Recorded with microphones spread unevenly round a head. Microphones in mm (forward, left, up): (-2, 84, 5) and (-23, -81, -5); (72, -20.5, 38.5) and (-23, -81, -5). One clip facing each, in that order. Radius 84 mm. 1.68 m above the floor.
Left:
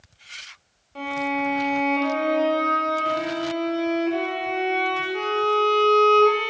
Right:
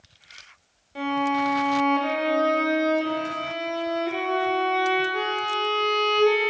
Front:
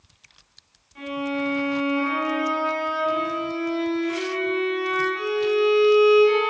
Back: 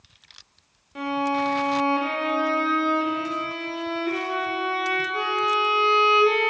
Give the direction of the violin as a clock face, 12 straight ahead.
6 o'clock.